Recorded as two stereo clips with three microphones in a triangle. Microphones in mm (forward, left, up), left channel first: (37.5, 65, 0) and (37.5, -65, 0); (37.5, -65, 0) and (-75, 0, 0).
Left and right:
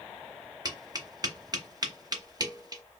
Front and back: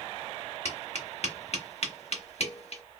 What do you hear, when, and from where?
0.7 s tapping: 35° right, 0.8 m